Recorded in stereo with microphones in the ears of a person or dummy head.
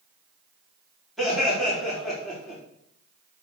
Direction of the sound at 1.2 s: Centre (ahead or behind).